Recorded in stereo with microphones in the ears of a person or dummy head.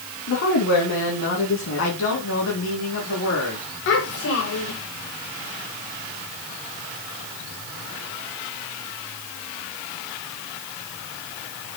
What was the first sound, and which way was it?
A woman speaking, 65° left (ahead or behind).